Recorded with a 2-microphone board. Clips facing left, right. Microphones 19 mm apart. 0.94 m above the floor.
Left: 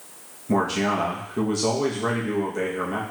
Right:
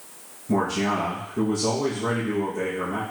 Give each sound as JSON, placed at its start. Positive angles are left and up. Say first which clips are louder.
{"t": 0.5, "sound": "a man speaking", "louder": "left 1 dB", "side_deg": 50, "distance_m": 0.8}